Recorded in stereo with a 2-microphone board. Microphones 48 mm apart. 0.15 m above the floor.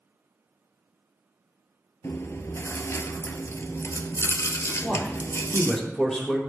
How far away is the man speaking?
About 5 m.